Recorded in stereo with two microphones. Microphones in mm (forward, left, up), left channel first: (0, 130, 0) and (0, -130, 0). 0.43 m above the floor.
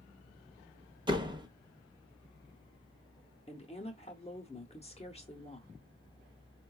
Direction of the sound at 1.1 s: 15° right (ahead or behind).